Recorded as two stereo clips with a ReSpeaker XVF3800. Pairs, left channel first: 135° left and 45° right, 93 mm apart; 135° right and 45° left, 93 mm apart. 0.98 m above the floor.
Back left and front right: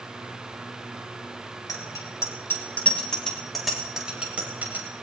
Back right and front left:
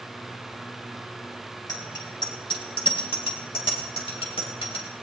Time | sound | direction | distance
1.7 | a bicycle bell | 175° right | 3 m